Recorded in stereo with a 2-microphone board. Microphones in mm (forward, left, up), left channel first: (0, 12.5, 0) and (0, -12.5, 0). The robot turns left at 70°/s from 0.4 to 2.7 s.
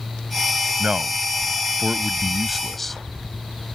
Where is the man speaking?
60° right; by 3.0 s 170° left.